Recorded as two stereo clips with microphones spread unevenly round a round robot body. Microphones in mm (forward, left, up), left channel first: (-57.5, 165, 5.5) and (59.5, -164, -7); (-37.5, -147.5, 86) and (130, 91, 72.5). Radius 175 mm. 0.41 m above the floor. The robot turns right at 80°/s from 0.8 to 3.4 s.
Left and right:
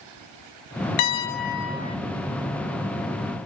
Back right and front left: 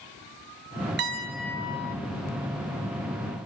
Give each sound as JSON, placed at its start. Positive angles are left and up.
{"t": 1.0, "sound": "a piano", "azimuth_deg": 110, "distance_m": 0.6}